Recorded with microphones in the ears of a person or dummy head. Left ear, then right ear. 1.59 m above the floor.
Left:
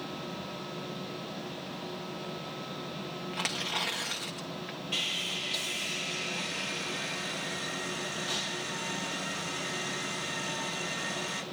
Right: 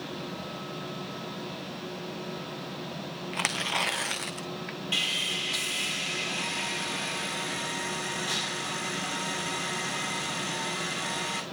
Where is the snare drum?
I don't hear a snare drum.